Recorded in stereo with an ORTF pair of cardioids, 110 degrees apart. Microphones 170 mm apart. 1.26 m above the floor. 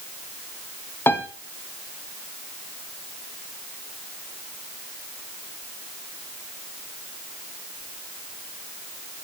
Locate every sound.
1.1 s a piano: 15° left, 1.5 m